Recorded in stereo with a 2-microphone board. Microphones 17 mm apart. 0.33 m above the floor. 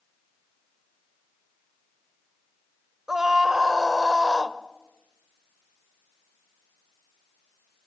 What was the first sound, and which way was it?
A scream, 30° right (ahead or behind).